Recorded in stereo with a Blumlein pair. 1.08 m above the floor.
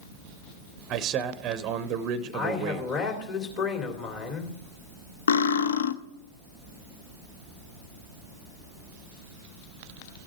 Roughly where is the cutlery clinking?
Ahead left.